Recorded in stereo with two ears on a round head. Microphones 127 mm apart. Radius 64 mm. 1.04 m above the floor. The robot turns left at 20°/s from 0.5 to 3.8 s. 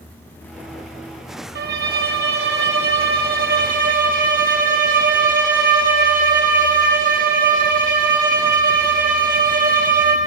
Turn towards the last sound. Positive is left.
turn(degrees=-115)